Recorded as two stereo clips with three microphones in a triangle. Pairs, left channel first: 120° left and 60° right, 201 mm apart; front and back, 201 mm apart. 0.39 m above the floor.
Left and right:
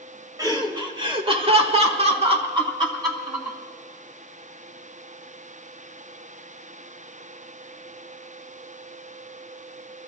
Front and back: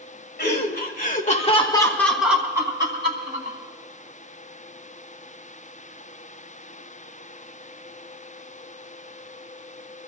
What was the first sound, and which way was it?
Laughter, 5° left.